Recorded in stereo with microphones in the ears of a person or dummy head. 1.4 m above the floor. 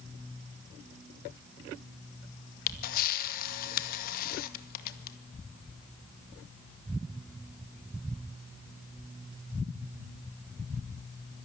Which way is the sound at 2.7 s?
50° left (ahead or behind).